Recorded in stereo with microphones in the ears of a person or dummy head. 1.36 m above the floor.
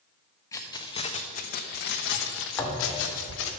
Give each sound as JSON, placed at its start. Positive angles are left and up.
{"t": 0.5, "sound": "keys jangling", "side_deg": 15, "distance_m": 1.0}
{"t": 2.6, "sound": "a thud", "side_deg": 5, "distance_m": 1.7}